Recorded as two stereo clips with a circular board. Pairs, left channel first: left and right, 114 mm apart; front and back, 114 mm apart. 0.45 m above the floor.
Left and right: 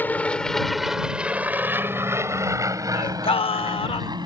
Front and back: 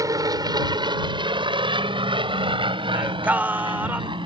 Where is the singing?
105° left.